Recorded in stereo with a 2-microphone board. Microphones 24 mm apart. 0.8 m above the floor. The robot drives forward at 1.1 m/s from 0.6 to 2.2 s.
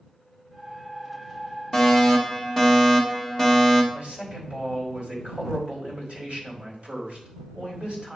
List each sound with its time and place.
1.7 s a fire alarm: 5° right (ahead or behind), 2.0 m; by 3.8 s centre (ahead or behind), 2 m
3.9 s a man speaking: 45° right (ahead or behind), 4 m